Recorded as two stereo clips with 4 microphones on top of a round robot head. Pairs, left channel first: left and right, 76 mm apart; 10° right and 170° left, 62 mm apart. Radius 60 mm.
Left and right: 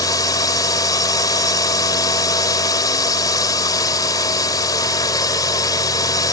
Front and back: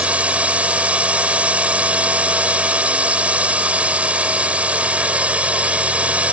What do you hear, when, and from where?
0.0 s a drone: 105° left